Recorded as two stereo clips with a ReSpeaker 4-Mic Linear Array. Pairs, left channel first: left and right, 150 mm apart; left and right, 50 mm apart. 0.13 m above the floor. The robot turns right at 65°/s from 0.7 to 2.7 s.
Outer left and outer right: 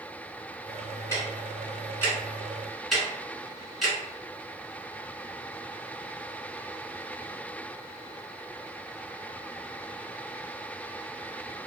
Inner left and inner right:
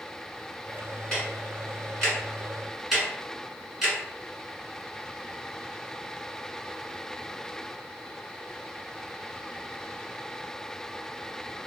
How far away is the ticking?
About 1.4 m.